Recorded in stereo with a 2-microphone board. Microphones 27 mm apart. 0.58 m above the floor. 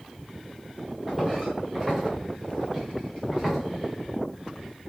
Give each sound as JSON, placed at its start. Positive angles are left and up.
{"t": 1.1, "sound": "footsteps", "side_deg": -5, "distance_m": 4.0}